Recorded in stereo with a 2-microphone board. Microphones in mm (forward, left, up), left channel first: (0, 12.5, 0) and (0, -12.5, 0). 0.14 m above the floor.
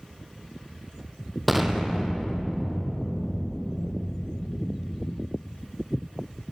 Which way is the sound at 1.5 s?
5° right (ahead or behind).